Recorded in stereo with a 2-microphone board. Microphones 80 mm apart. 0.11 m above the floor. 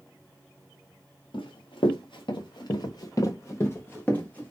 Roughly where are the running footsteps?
Left.